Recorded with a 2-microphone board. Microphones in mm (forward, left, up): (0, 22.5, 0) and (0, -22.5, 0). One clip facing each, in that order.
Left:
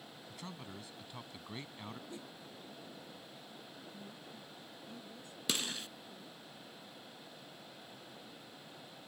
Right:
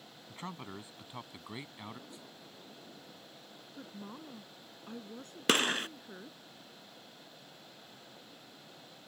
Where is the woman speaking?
60° right (ahead or behind).